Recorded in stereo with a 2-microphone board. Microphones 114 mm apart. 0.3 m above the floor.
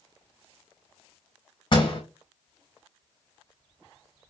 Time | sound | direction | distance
1.7 | a door slam | 45° left (ahead or behind) | 1.8 m